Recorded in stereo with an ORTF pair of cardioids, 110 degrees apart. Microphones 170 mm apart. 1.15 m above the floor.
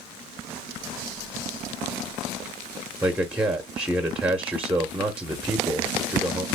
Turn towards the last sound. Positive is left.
turn(degrees=-10)